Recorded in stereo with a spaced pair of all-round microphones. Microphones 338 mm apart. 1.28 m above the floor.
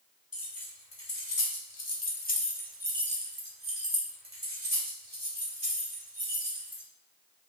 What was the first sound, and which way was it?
Keys jangling, 70° left (ahead or behind).